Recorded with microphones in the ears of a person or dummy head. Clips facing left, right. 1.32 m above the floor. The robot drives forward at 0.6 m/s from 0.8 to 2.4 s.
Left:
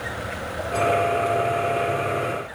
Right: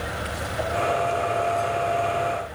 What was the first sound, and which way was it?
Only background noise.